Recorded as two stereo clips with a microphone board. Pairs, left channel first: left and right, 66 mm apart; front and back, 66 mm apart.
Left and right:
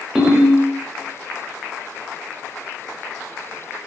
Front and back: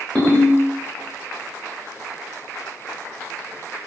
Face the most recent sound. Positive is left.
turn(degrees=-25)